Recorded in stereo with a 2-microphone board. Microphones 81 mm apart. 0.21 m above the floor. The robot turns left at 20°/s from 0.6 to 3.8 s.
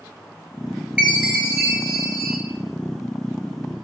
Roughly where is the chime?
Centre.